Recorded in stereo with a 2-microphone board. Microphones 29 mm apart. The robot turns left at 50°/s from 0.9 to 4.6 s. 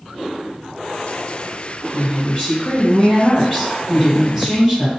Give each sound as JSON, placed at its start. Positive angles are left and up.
{"t": 1.9, "sound": "a woman speaking", "side_deg": 30, "distance_m": 1.9}